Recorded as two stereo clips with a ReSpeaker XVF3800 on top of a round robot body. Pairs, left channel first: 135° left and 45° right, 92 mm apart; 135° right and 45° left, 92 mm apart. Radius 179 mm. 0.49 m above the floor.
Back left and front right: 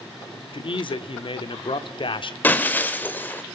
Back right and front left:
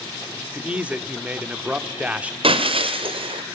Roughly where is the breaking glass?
Ahead left.